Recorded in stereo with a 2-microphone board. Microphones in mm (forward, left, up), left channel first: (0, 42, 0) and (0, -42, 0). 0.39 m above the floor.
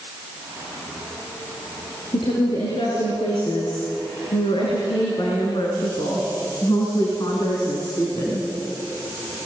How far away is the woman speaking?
About 7 m.